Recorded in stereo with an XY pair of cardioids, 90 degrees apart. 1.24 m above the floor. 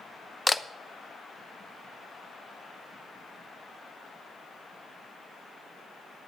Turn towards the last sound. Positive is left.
turn(degrees=25)